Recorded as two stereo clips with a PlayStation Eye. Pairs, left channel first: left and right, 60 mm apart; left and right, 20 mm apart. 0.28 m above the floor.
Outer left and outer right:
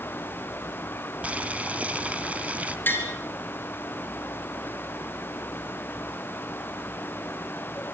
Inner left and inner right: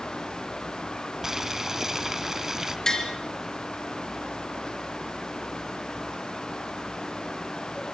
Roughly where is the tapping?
Left.